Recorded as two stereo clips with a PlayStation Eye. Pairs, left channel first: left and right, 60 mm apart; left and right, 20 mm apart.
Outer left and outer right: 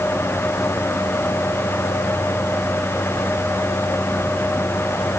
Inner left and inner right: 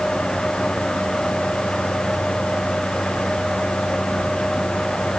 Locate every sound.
Only background noise.